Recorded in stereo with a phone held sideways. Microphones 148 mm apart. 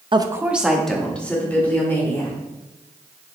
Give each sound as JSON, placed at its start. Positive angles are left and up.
{"t": 0.1, "sound": "a woman speaking", "side_deg": -35, "distance_m": 0.6}